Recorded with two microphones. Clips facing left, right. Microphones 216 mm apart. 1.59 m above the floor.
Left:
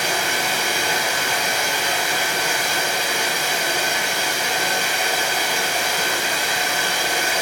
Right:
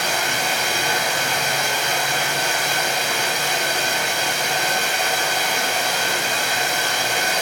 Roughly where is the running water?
Centre.